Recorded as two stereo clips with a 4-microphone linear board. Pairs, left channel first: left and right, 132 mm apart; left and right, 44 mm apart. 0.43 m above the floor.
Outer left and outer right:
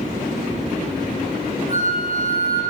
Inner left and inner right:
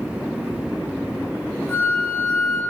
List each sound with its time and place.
1.7 s a flute: 45° left (ahead or behind), 0.8 m